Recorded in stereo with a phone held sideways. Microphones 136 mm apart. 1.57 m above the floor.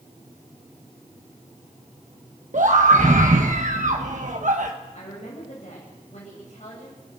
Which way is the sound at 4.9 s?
55° left (ahead or behind).